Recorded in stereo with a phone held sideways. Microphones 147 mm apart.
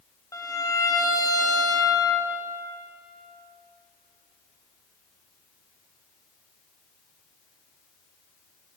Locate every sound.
0.3 s a violin: 25° left (ahead or behind), 0.9 m